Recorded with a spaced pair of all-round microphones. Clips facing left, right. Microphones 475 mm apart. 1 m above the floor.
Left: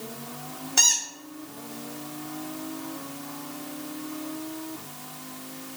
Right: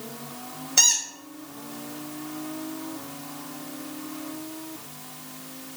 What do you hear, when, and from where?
0.8 s a squeak: 10° left (ahead or behind), 1.4 m